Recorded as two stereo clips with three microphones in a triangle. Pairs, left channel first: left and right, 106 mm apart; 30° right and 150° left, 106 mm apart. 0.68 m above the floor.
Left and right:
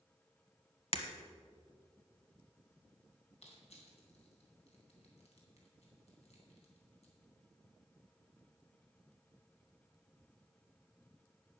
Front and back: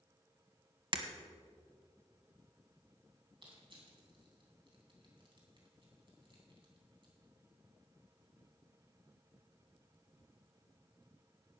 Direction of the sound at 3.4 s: 110° left.